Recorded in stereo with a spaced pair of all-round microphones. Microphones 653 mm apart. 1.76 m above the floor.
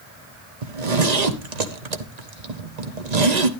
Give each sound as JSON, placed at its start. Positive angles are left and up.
{"t": 0.6, "sound": "a zipper", "side_deg": -80, "distance_m": 1.2}